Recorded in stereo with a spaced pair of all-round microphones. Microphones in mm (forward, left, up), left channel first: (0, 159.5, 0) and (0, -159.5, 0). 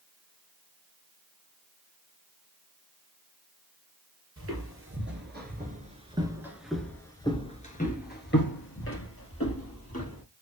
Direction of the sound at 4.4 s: 45° right (ahead or behind).